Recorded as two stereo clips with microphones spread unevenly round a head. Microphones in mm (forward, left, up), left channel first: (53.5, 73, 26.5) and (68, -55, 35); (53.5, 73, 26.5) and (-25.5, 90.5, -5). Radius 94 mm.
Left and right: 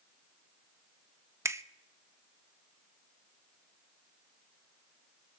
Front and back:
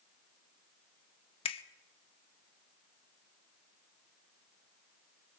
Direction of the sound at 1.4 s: 15° right.